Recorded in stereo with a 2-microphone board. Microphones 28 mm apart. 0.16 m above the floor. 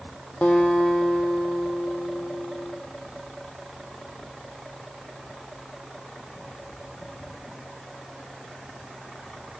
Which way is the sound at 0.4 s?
50° left (ahead or behind).